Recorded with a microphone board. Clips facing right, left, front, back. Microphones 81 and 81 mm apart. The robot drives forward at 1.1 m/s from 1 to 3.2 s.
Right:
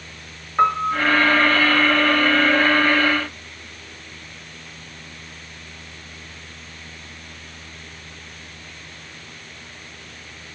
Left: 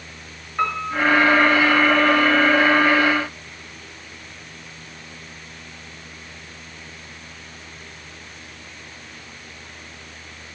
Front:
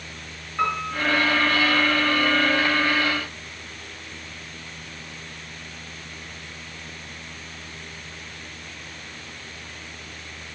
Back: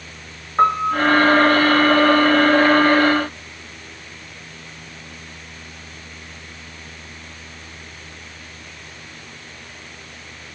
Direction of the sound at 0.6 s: 150° right.